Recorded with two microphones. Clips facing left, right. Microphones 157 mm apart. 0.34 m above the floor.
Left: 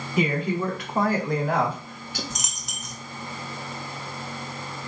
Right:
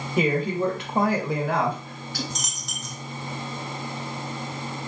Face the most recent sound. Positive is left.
turn(degrees=10)  # may be behind; listen again after turning